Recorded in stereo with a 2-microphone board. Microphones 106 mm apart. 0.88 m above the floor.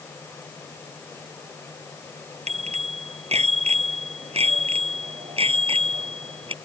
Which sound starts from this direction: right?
A bicycle bell, at 2.5 s.